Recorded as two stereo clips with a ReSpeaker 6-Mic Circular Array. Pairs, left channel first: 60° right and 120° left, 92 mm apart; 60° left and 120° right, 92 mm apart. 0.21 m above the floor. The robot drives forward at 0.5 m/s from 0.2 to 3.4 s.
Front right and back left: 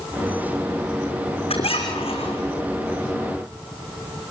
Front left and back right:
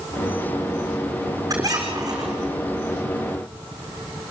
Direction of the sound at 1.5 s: 65° right.